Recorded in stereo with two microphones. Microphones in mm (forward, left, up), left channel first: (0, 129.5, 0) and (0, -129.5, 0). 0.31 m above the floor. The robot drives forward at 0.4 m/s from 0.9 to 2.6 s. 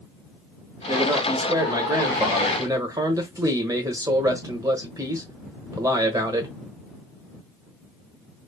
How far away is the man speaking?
About 1.1 m.